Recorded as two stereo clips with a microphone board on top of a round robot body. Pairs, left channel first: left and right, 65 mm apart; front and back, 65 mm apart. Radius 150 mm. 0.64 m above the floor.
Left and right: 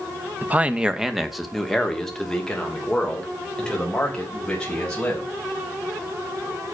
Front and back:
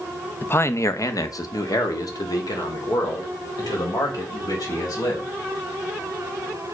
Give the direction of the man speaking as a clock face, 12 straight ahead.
1 o'clock.